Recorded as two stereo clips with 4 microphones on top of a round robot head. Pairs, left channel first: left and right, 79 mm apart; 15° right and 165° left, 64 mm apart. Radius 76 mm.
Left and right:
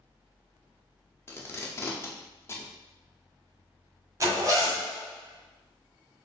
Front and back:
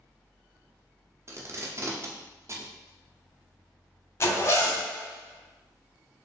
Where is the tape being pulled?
140° left, 1.0 m.